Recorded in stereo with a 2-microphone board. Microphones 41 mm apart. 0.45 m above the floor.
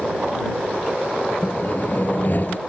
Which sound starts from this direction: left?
Sawing, at 1.4 s.